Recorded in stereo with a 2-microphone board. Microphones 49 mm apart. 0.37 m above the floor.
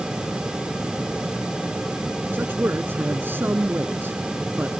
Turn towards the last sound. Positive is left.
turn(degrees=-50)  # may be behind; listen again after turning